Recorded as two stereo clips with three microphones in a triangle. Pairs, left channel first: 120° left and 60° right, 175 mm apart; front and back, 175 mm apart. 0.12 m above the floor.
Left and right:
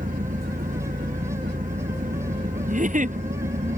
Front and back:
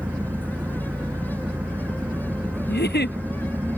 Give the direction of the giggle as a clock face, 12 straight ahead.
1 o'clock.